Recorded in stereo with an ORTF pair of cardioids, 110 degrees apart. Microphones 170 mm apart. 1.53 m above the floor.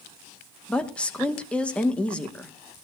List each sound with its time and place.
0.7 s a woman speaking: 5° left, 2 m